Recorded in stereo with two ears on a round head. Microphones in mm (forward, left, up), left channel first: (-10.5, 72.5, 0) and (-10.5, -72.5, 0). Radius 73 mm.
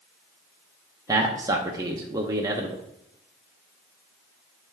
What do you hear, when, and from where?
1.1 s a man speaking: 20° right (ahead or behind), 0.7 m